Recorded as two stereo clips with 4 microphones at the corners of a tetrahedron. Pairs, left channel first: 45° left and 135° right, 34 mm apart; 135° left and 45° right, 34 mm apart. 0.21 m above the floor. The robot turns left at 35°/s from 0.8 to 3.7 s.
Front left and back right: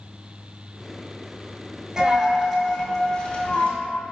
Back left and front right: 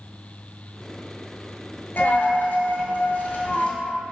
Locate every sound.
2.0 s a dropped coin: 150° left, 0.7 m; by 3.7 s 90° left, 0.7 m